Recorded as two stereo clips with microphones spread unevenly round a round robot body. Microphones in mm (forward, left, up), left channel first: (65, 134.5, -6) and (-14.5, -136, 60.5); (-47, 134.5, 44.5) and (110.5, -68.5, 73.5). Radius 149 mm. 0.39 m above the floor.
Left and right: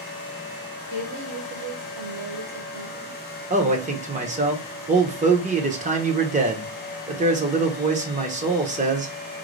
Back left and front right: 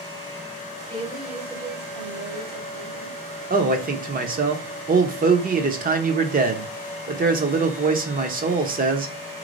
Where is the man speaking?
45° right, 0.8 m.